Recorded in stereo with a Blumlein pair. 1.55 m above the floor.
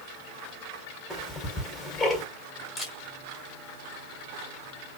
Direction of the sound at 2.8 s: 15° left.